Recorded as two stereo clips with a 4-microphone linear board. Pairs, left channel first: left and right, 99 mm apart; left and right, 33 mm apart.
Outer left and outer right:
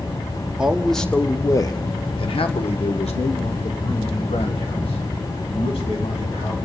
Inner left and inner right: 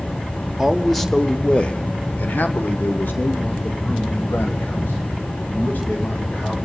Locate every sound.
0.6 s a man speaking: 10° right (ahead or behind), 0.9 m; by 6.5 s 75° left (ahead or behind), 3 m